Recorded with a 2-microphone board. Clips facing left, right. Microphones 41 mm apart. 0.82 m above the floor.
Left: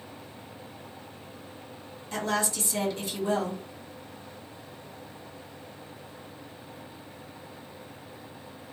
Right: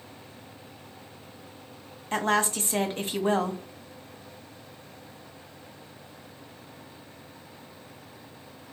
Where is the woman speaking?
40° right (ahead or behind), 0.9 m.